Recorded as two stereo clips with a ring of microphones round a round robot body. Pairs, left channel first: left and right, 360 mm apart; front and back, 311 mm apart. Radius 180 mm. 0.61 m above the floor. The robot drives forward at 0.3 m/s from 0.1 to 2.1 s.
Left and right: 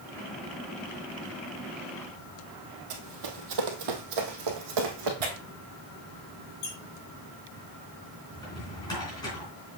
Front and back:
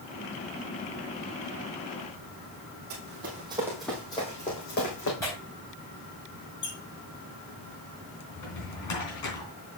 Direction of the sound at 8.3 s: 10° left.